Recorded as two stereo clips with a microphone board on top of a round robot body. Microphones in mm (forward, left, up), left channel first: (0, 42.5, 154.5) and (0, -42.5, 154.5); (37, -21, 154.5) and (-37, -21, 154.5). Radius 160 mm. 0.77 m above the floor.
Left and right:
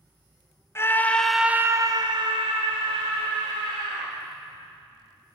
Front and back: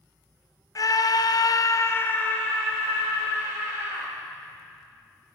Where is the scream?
30° left, 1.4 m; by 4.1 s 95° right, 3.5 m.